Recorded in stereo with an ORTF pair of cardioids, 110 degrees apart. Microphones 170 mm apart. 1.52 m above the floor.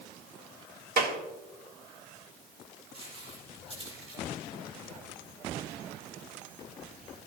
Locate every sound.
1.0 s a clap: 70° right, 1.8 m
2.9 s footsteps: 35° right, 5.5 m